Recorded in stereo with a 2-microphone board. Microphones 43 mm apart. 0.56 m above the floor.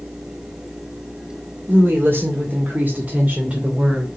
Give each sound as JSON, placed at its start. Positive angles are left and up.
{"t": 1.7, "sound": "a woman speaking", "side_deg": -55, "distance_m": 2.0}